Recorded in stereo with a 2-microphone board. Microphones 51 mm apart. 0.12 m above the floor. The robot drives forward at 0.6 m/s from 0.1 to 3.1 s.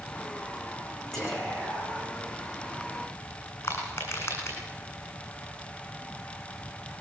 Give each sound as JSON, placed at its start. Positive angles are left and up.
{"t": 1.1, "sound": "whispering", "side_deg": 5, "distance_m": 9.0}
{"t": 3.6, "sound": "crushing", "side_deg": 45, "distance_m": 7.5}